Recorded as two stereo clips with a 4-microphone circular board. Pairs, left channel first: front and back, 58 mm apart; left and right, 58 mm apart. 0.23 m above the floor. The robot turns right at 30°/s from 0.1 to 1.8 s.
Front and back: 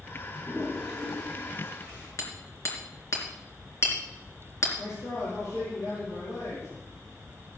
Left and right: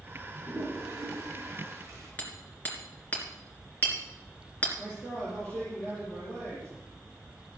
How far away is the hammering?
About 3 m.